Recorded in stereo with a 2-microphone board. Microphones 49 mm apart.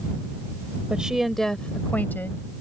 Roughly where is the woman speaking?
Right.